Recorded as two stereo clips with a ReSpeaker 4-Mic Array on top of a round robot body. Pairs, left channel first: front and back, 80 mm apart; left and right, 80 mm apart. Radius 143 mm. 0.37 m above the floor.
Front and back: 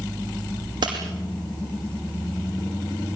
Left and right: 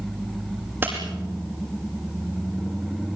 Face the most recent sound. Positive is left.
turn(degrees=-155)